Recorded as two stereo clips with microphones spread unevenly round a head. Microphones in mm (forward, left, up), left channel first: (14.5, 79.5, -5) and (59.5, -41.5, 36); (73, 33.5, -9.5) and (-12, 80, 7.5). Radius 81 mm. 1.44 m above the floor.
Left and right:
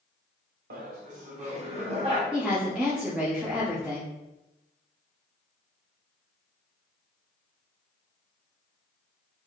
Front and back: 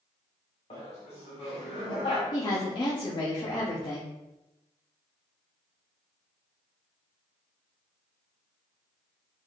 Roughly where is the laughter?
Ahead right.